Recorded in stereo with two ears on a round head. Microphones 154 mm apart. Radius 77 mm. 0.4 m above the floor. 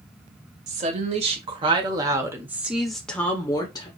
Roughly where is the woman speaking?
Right.